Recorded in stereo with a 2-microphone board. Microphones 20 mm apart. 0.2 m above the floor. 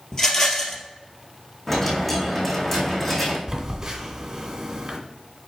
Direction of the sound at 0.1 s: 30° left (ahead or behind).